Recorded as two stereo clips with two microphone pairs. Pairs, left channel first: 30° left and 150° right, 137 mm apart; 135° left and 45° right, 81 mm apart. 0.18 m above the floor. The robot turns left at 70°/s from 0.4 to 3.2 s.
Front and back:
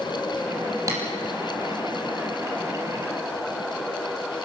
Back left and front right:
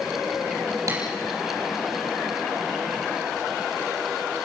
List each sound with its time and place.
0.9 s tapping: 85° right, 5.5 m; by 1.0 s 95° right, 5.5 m